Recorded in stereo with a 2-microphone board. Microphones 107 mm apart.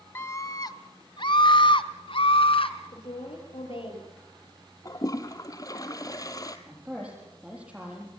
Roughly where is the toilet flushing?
Left.